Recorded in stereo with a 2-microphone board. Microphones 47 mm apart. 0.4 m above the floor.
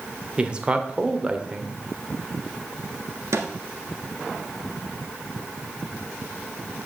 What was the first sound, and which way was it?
A man speaking, 20° right (ahead or behind).